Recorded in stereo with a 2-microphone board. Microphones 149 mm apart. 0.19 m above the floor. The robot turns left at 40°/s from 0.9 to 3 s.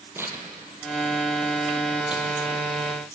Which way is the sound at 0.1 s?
15° right (ahead or behind).